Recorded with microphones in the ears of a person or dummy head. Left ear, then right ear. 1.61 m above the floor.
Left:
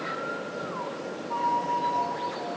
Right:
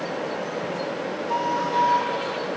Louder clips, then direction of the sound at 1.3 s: Right 2 dB; 45° right (ahead or behind).